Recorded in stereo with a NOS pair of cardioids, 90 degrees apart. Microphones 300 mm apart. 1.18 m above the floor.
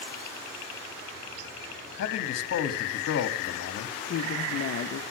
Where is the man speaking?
55° left, 2.5 m.